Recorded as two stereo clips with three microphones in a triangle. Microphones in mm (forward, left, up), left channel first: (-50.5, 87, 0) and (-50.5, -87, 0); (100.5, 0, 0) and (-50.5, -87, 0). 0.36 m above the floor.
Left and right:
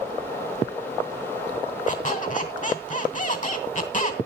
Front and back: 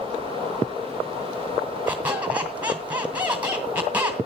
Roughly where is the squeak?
Behind left.